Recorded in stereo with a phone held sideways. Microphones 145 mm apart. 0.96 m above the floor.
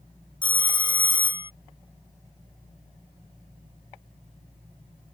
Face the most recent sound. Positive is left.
turn(degrees=35)  # may be behind; listen again after turning